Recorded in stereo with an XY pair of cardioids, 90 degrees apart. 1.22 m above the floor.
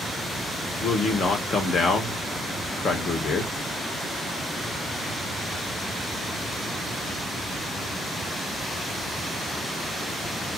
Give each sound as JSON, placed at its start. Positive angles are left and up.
{"t": 0.8, "sound": "a man speaking", "azimuth_deg": 65, "distance_m": 1.2}